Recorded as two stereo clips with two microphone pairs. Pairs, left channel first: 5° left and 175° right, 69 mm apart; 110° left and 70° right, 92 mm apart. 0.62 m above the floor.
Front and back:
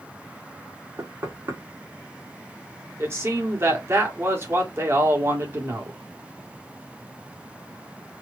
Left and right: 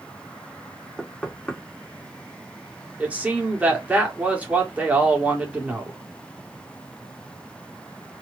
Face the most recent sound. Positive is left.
turn(degrees=-140)